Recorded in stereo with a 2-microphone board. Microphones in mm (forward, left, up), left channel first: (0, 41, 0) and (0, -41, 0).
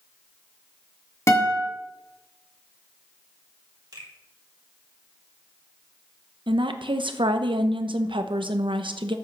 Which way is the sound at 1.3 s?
35° left (ahead or behind).